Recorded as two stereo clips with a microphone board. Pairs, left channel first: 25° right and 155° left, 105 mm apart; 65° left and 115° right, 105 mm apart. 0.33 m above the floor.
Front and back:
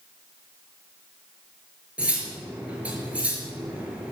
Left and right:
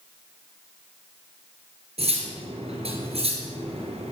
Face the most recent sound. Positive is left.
turn(degrees=-125)